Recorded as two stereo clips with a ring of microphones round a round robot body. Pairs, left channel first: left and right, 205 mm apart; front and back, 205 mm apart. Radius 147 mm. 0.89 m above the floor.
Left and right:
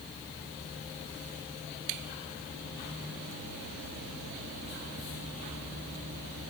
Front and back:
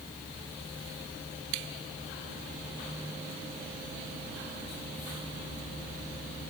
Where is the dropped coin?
No dropped coin in this recording.